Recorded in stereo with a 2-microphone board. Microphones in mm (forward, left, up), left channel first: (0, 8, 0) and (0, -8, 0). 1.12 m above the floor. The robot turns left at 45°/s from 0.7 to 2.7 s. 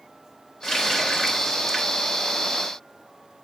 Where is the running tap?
45° left, 3 m; by 2.0 s 15° right, 3 m.